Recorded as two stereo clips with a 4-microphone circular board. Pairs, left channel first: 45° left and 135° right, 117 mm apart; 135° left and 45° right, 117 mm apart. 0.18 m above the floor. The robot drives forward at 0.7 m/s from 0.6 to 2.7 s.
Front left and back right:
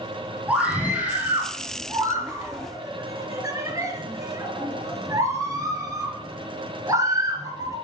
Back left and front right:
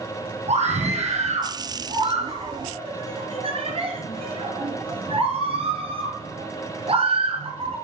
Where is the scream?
55° right, 4.5 m; by 7.8 s 75° right, 3.5 m.